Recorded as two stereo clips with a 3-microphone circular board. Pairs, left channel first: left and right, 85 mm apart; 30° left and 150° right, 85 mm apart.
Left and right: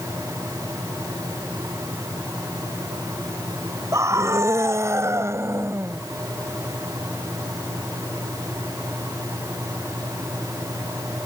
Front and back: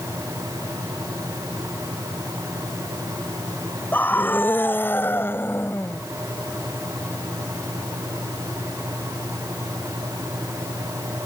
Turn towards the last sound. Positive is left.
turn(degrees=-35)